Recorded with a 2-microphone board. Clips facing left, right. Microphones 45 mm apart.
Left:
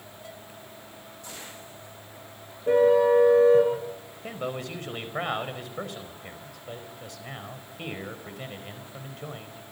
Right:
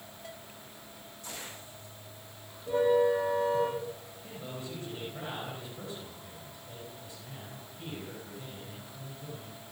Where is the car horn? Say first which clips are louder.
Left 6 dB; 70° left (ahead or behind), 8.5 m.